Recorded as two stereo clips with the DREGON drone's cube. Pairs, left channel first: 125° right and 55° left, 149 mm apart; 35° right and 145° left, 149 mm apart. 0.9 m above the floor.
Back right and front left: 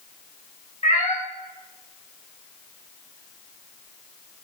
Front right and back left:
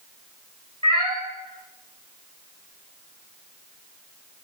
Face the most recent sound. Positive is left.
turn(degrees=-165)